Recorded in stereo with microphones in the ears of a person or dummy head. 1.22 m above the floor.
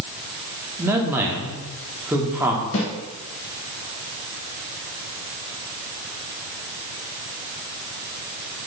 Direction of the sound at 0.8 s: 10° right (ahead or behind).